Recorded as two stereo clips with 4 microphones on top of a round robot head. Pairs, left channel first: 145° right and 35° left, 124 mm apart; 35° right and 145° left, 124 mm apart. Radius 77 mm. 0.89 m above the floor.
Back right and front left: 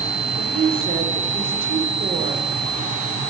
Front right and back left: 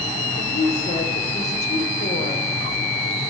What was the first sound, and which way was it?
A woman speaking, 10° right.